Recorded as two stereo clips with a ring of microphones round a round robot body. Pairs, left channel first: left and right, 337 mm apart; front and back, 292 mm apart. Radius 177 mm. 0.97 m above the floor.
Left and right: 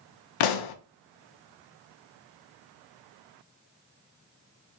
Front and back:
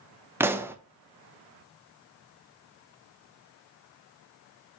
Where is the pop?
95° left, 0.6 m.